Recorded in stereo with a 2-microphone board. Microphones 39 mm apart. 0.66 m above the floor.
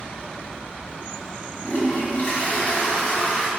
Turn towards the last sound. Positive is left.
turn(degrees=45)  # may be behind; listen again after turning